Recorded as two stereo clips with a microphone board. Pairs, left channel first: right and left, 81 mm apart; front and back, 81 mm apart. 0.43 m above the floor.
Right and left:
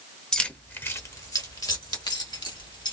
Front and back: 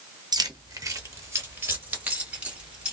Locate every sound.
0.3 s keys jangling: 170° right, 0.8 m; by 2.9 s 100° right, 1.7 m